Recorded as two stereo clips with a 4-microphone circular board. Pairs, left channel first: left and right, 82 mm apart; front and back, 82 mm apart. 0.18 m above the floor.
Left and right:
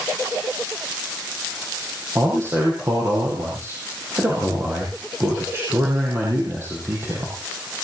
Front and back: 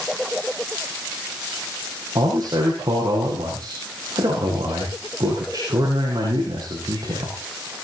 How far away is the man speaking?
About 6 m.